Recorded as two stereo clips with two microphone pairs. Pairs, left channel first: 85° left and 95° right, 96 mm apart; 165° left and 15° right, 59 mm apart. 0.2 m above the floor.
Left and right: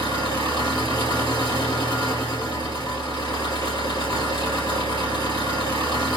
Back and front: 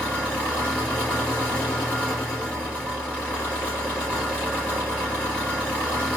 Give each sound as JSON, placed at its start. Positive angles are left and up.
{"t": 0.0, "sound": "an engine running", "azimuth_deg": 95, "distance_m": 2.0}